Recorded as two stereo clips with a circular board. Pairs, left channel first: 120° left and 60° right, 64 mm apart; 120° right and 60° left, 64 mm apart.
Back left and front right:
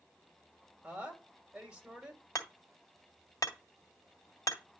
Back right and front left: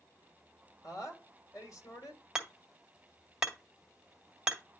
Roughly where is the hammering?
Behind left.